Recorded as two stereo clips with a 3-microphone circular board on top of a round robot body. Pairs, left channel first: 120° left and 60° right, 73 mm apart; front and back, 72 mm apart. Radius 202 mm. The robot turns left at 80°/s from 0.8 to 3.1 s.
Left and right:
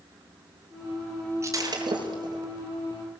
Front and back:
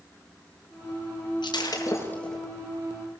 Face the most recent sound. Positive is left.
turn(degrees=-140)